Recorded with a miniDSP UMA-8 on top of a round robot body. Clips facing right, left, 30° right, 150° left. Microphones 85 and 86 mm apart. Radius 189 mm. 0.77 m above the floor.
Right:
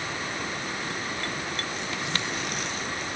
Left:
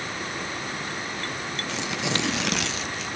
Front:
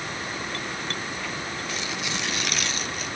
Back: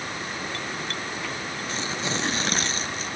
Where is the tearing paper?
90° left, 1.2 m.